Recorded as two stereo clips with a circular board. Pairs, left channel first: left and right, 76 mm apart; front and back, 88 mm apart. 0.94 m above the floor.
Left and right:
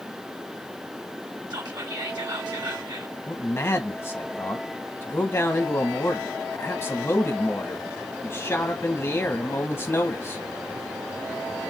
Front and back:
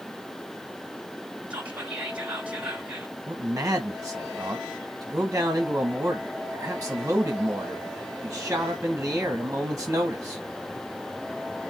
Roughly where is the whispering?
Right.